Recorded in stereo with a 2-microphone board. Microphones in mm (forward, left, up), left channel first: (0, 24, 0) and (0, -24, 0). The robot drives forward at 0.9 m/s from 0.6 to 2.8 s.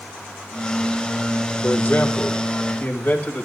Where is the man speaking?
40° left (ahead or behind), 3 m; by 3.5 s 30° left (ahead or behind), 4 m.